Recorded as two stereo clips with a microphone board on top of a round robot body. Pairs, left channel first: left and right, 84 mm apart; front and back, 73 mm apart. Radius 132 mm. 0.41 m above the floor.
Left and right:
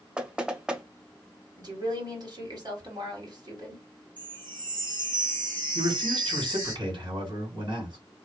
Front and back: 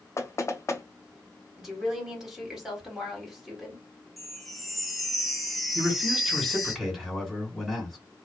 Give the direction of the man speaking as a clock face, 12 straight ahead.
3 o'clock.